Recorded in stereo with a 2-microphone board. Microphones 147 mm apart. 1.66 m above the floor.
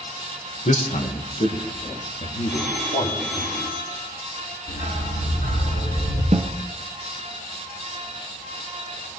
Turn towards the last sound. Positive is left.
turn(degrees=-55)  # may be behind; listen again after turning